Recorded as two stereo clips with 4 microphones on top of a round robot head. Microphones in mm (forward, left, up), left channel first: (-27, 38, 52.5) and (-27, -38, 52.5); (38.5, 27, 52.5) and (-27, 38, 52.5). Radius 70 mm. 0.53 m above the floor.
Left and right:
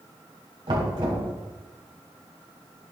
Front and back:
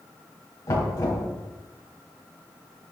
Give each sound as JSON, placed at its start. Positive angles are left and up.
{"t": 0.7, "sound": "knocking", "azimuth_deg": -60, "distance_m": 3.5}